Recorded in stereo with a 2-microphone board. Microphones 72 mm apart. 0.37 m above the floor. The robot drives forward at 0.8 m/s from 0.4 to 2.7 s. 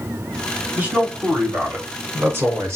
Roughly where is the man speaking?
Right.